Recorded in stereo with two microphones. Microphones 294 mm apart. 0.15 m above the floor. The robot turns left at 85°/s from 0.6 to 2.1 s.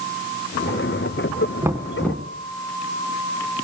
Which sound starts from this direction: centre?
Knocking, at 1.6 s.